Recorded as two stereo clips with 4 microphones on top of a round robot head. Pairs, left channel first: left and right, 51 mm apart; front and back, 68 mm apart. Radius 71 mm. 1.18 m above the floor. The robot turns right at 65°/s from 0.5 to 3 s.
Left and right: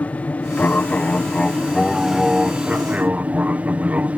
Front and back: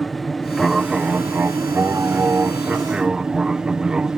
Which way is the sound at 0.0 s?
85° left.